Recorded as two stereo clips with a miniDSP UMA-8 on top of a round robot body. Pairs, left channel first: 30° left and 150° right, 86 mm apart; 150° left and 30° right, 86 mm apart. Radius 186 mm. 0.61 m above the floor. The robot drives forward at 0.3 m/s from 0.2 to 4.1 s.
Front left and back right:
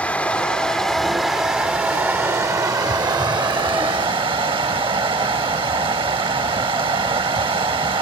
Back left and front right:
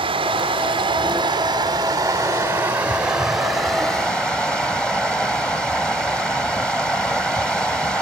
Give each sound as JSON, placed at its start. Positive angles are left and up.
{"t": 0.0, "sound": "running water", "azimuth_deg": -45, "distance_m": 1.0}